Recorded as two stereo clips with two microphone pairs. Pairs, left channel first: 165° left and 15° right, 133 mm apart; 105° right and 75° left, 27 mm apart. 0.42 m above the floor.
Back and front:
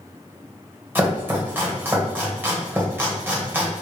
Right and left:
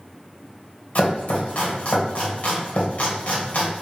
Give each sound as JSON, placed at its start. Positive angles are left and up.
{"t": 0.9, "sound": "chopping", "azimuth_deg": -90, "distance_m": 1.3}